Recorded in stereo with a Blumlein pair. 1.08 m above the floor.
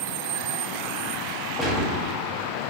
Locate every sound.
1.6 s a gunshot: straight ahead, 0.9 m